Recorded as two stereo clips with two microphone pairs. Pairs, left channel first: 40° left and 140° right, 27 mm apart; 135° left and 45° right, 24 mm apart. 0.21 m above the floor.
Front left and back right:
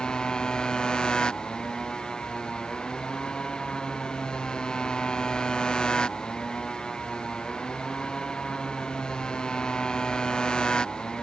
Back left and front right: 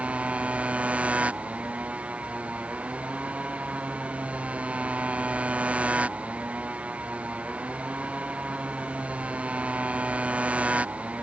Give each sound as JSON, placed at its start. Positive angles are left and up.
{"t": 0.0, "sound": "a motorcycle", "azimuth_deg": -15}